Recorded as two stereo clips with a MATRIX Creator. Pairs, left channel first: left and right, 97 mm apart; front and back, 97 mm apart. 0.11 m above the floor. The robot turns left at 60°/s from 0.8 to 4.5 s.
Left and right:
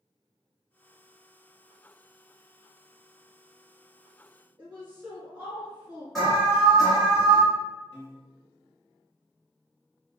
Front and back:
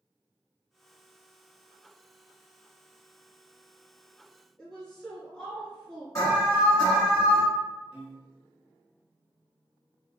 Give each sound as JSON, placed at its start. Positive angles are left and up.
{"t": 4.6, "sound": "a woman speaking", "azimuth_deg": -60, "distance_m": 1.2}
{"t": 6.2, "sound": "an alarm", "azimuth_deg": 5, "distance_m": 1.8}
{"t": 7.9, "sound": "a piano", "azimuth_deg": 120, "distance_m": 1.2}